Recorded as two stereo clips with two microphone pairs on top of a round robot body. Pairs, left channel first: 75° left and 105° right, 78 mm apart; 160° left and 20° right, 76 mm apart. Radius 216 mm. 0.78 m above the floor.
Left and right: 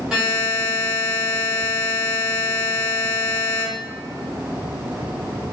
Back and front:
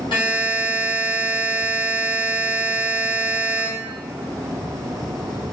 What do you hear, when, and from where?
0.1 s a buzzer: 170° left, 0.8 m